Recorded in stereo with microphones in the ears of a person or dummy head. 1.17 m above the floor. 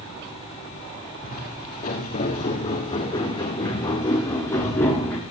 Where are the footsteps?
40° left (ahead or behind), 5.5 m; by 5.2 s 10° left (ahead or behind), 4.5 m.